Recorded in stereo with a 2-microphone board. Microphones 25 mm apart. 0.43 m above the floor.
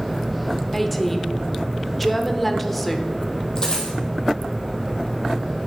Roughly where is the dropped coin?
Left.